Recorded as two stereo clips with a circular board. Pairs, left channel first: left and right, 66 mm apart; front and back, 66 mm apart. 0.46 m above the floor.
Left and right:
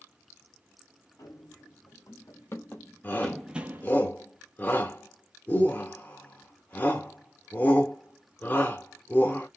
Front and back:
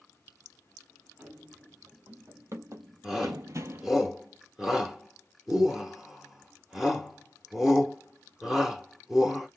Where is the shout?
100° left, 1.0 m.